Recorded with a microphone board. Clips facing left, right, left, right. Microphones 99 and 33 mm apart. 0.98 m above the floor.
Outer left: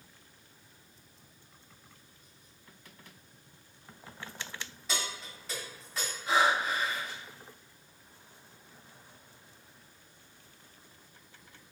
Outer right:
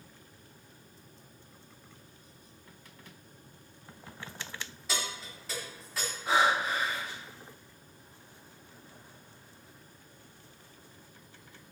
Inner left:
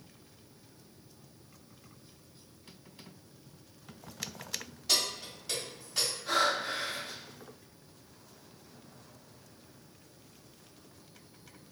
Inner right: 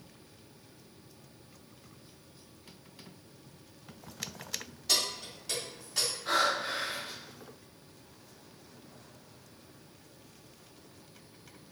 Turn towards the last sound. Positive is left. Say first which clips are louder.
# even, even
turn(degrees=-65)  # may be behind; listen again after turning